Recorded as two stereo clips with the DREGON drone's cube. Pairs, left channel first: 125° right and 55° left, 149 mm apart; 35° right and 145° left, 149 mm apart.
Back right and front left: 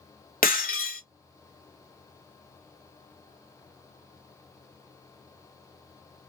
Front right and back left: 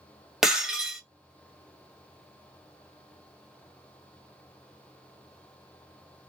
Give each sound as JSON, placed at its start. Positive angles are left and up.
{"t": 0.4, "sound": "breaking glass", "azimuth_deg": -130, "distance_m": 0.9}